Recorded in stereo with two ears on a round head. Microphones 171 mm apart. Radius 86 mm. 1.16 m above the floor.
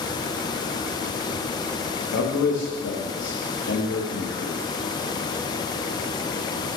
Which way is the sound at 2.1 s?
65° left (ahead or behind).